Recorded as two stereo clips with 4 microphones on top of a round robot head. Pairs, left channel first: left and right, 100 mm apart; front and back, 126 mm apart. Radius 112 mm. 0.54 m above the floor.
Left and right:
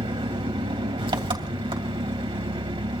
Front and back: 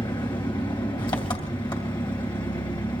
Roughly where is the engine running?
Ahead right.